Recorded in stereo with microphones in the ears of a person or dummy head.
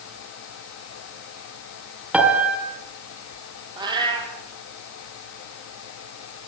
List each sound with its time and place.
2.1 s a piano: 10° right (ahead or behind), 4 m
3.8 s a cat meowing: 30° right (ahead or behind), 4 m